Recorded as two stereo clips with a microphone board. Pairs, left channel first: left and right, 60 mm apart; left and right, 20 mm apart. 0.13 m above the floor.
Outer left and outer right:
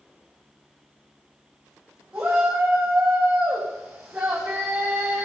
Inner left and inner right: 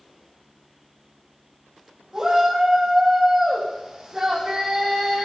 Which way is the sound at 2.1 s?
15° right (ahead or behind).